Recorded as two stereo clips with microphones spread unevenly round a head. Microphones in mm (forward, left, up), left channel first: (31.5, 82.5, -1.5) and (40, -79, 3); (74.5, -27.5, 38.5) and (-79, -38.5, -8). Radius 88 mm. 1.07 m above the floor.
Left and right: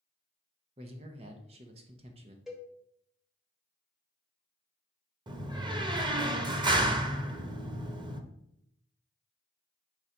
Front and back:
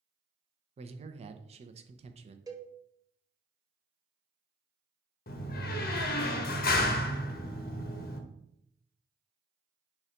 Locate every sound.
0.8 s a man speaking: 145° right, 0.8 m
2.5 s a cowbell: 175° right, 0.9 m
5.3 s a door slam: 25° right, 0.8 m